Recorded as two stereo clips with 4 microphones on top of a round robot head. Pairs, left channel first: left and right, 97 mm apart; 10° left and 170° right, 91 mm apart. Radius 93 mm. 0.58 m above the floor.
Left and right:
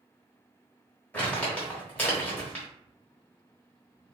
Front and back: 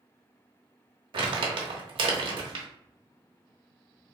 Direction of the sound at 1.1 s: 165° left.